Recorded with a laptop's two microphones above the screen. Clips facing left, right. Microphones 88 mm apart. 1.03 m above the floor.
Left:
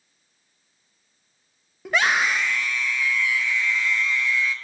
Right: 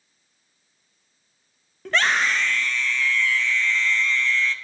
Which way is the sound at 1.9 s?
10° left (ahead or behind).